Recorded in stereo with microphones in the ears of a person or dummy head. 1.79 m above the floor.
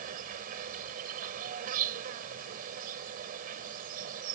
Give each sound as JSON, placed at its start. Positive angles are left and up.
{"t": 0.0, "sound": "an insect", "side_deg": -50}